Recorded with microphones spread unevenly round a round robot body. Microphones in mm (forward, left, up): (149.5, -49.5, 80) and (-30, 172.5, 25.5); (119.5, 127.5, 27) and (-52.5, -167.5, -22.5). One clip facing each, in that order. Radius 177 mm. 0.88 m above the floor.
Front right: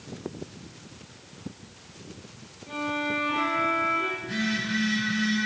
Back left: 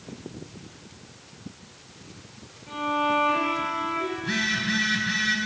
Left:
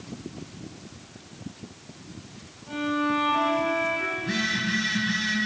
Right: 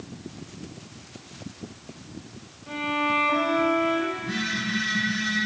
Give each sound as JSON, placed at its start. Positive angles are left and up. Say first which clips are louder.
{"t": 2.7, "sound": "a violin", "louder": "back left 2 dB, left 3 dB", "azimuth_deg": -160, "distance_m": 4.0}
{"t": 4.2, "sound": "a phone buzzing", "louder": "front right 1 dB, left 1 dB", "azimuth_deg": 130, "distance_m": 2.5}